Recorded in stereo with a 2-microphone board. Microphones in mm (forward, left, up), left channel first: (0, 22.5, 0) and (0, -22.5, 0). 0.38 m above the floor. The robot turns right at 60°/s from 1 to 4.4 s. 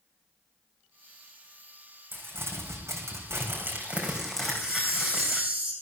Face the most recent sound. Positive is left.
turn(degrees=-30)  # may be behind; listen again after turning